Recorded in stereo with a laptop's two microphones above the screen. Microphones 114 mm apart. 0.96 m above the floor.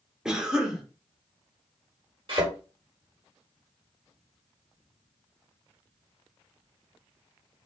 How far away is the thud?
About 1.3 m.